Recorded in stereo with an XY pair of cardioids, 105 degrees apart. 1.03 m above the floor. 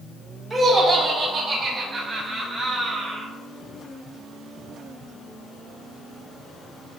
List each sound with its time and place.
0.5 s laughter: 15° right, 3.5 m; by 3.3 s 20° right, 7.5 m